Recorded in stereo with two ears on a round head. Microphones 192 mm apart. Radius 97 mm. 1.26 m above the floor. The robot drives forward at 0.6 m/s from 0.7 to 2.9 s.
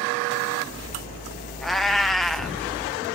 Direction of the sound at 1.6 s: Centre (ahead or behind).